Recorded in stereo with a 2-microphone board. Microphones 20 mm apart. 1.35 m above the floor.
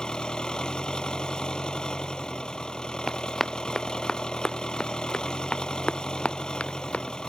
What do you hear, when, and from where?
0.0 s an engine running: 45° left (ahead or behind)
3.1 s running footsteps: 10° left (ahead or behind); by 7.3 s 70° left (ahead or behind)